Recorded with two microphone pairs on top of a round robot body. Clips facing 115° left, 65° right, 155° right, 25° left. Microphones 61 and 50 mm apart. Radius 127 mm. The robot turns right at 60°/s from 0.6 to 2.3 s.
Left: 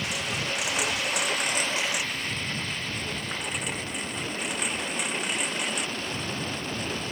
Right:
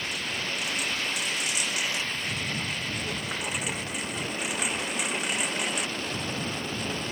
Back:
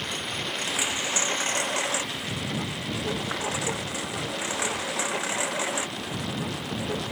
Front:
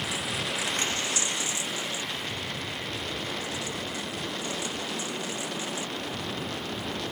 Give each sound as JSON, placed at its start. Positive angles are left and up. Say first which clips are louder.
{"t": 0.0, "sound": "a lawn mower", "louder": "left 2 dB, even", "azimuth_deg": 110}